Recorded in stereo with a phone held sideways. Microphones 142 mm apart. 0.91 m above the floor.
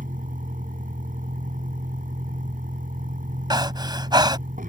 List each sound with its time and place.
0.0 s a vehicle: 75° right (ahead or behind)
3.5 s breathing: 30° right (ahead or behind)